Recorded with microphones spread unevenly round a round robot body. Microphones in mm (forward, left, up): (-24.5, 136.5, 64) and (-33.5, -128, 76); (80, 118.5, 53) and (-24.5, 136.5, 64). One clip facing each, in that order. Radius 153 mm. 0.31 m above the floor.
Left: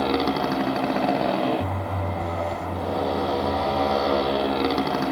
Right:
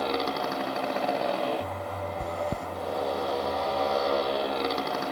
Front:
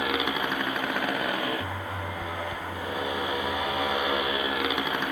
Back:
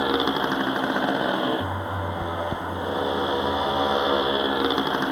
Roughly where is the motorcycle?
Left.